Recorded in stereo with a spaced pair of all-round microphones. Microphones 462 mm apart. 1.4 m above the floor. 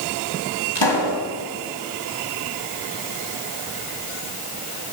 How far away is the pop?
About 2.5 m.